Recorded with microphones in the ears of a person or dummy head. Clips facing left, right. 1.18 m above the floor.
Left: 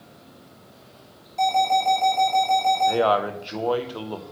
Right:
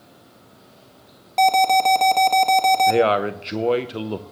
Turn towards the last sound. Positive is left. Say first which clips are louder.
# right 3 dB
turn(degrees=-25)  # may be behind; listen again after turning